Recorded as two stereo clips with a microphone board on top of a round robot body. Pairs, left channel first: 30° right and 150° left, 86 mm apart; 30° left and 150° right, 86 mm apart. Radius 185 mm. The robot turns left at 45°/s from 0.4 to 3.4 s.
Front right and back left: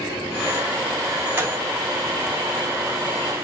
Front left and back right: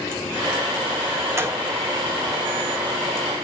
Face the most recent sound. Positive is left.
turn(degrees=100)